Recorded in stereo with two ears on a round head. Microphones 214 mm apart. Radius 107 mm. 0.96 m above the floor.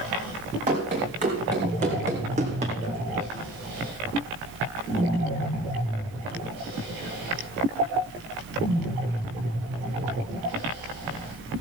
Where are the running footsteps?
30° right (ahead or behind), 4.5 m.